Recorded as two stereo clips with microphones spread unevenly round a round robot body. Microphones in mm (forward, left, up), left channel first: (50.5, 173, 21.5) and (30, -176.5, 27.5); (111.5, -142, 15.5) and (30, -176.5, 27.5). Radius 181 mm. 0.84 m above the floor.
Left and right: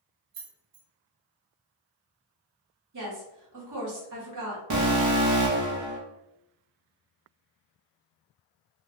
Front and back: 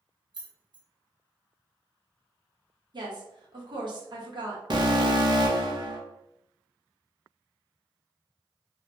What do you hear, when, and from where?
0.3 s keys jangling: 120° right, 0.7 m
2.9 s a woman speaking: 125° right, 1.1 m
4.7 s an alarm: 125° right, 0.8 m